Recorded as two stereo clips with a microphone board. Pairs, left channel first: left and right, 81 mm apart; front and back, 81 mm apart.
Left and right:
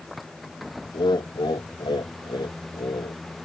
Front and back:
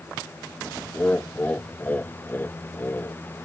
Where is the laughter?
75° left; by 3.2 s 65° left.